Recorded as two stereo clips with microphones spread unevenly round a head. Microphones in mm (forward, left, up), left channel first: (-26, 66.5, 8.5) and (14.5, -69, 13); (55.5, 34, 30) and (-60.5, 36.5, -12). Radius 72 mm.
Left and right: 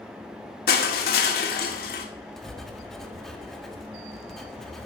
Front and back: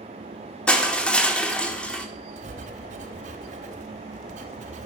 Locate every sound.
0.7 s crushing: 85° left, 1.9 m
2.4 s writing: 165° right, 1.4 m